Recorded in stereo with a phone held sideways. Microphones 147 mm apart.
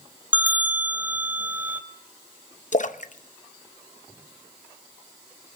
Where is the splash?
55° left (ahead or behind), 0.7 m.